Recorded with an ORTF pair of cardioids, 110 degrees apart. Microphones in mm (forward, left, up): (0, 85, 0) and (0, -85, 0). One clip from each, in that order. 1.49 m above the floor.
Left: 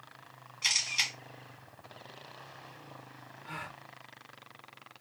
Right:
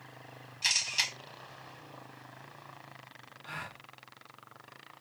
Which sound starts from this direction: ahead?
A camera shutter, at 0.6 s.